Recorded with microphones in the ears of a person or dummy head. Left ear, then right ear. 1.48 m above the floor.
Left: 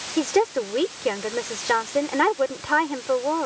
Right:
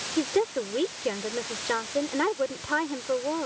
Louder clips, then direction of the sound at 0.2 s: Left 5 dB; 35° left (ahead or behind).